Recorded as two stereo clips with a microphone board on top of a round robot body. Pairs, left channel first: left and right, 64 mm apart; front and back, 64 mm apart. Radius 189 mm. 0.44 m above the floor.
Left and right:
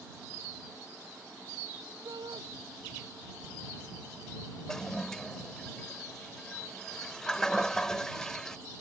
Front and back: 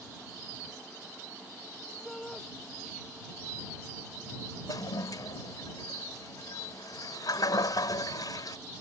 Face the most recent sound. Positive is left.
turn(degrees=10)